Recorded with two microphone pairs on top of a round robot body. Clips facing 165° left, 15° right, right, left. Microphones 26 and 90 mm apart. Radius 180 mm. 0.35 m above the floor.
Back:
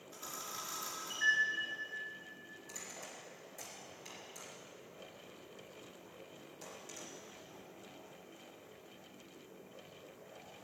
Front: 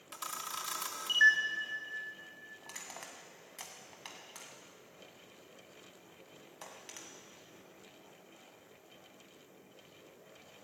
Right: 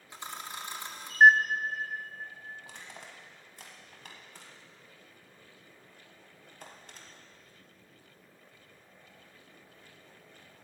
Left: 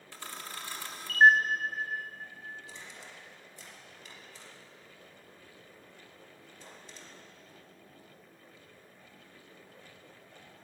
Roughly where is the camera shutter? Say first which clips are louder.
Front 5 dB, right 2 dB; ahead.